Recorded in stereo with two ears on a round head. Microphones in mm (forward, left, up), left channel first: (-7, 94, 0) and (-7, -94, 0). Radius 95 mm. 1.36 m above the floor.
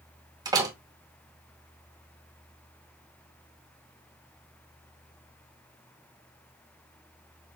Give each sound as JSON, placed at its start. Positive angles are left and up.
{"t": 0.5, "sound": "a door slam", "side_deg": -20, "distance_m": 1.0}